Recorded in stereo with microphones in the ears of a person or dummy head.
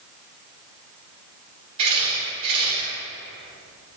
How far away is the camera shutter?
About 5 m.